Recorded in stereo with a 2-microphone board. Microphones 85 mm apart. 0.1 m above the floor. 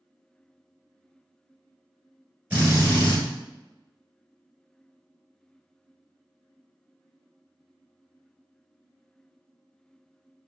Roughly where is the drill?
Centre.